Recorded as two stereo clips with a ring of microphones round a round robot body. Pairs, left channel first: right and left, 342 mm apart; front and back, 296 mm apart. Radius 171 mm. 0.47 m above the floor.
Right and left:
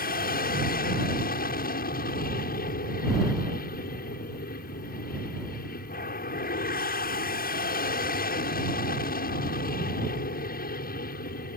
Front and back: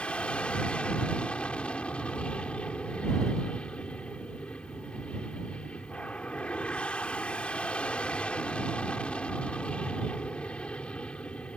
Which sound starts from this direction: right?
An aircraft, at 0.0 s.